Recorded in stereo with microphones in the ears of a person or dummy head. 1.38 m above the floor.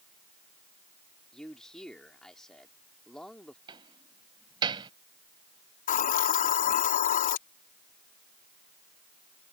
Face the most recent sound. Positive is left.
turn(degrees=45)  # may be behind; listen again after turning